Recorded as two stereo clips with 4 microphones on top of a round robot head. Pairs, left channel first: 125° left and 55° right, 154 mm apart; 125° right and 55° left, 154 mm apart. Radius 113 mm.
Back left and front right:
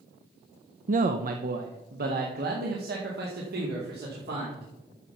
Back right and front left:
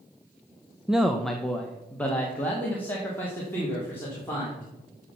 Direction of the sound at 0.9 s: 30° right.